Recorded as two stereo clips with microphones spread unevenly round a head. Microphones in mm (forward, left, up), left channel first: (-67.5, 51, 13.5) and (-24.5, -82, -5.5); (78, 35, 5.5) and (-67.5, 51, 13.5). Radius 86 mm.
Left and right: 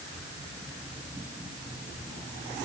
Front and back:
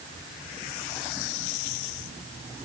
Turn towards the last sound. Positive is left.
No sound to turn to.